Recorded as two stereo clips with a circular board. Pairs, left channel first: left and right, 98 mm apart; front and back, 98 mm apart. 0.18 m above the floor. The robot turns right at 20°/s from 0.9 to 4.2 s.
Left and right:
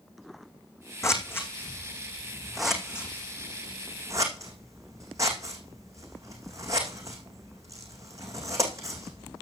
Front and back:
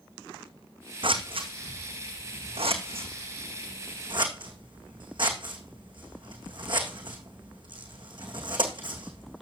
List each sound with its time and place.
1.0 s scissors: 150° left, 2.0 m; by 9.4 s 145° right, 2.0 m